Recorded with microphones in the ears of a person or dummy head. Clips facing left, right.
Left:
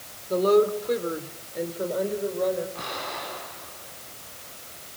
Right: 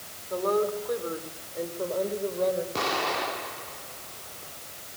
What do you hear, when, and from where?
0.3 s a woman speaking: 45° left (ahead or behind), 3.5 m; by 2.6 s centre (ahead or behind), 4.5 m
2.8 s an explosion: 80° right, 4 m